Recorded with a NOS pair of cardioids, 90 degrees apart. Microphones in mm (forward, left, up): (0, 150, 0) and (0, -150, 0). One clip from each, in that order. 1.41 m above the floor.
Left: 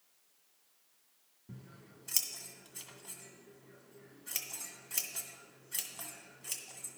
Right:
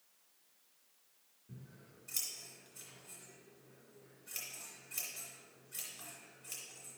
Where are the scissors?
65° left, 2 m.